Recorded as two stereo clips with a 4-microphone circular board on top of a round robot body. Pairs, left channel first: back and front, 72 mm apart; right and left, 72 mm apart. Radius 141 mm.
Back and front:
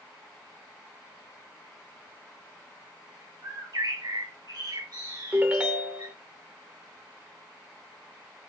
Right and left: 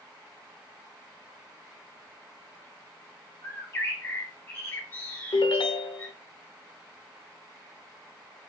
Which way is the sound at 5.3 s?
70° right.